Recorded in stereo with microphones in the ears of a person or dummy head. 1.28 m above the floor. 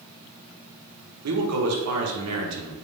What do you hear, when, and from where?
1.2 s a man speaking: 80° right, 1.1 m